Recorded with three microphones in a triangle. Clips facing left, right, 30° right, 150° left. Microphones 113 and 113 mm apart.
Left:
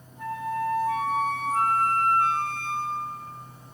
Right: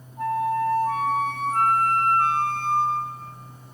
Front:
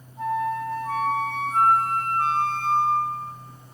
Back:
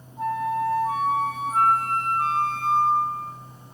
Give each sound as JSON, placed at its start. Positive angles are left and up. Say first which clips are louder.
{"t": 0.2, "sound": "a flute", "louder": "right 6 dB, back 1 dB", "azimuth_deg": -125, "distance_m": 3.0}